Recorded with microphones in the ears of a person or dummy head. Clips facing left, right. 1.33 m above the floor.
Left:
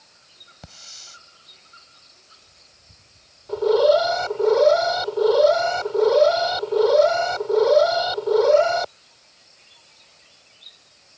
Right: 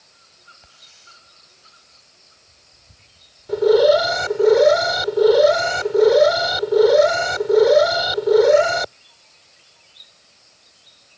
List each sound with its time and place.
0.6 s a hiss: 80° left
3.5 s an alarm: 25° right (ahead or behind)